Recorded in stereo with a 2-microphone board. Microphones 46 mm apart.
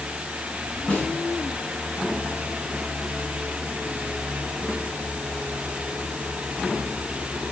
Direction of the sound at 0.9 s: 30° left (ahead or behind).